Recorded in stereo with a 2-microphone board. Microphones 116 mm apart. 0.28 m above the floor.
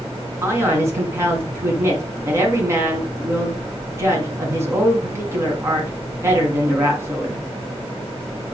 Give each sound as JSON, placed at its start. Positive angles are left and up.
{"t": 0.4, "sound": "a man speaking", "side_deg": -25, "distance_m": 2.5}